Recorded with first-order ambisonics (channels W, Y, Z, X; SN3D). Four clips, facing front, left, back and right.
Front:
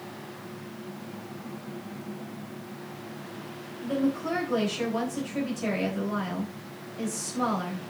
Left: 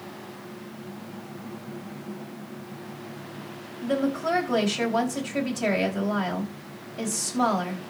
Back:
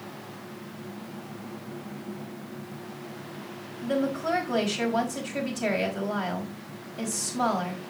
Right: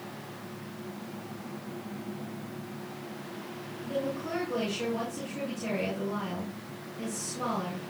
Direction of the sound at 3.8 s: 110° left.